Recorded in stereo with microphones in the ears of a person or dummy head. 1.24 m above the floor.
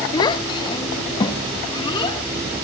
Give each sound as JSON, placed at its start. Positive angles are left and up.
{"t": 0.1, "sound": "a child speaking", "side_deg": 25, "distance_m": 0.5}